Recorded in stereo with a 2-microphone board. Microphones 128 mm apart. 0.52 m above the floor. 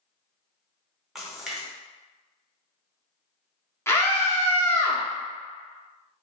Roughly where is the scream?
Centre.